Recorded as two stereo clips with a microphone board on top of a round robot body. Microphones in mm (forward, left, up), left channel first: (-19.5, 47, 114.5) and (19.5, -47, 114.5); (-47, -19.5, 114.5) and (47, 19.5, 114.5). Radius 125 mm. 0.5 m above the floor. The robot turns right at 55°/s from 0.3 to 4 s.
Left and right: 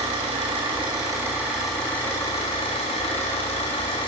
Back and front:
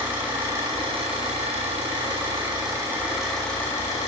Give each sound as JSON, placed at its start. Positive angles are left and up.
{"t": 0.0, "sound": "an engine running", "azimuth_deg": -50, "distance_m": 5.0}